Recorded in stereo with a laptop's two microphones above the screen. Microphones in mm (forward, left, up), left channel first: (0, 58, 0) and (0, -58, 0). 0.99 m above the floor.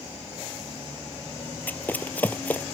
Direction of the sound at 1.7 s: 15° left (ahead or behind).